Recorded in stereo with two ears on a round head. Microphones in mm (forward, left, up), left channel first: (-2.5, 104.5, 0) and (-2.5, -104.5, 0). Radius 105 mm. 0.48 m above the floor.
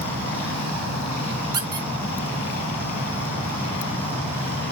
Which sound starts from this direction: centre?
A squeak, at 1.5 s.